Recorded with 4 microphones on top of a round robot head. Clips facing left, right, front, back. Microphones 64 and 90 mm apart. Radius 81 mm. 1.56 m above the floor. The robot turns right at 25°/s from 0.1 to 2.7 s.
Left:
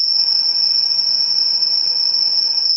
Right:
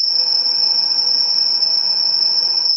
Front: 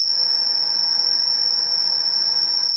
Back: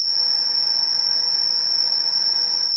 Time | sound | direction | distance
0.0 | an insect | 90° left | 1.7 m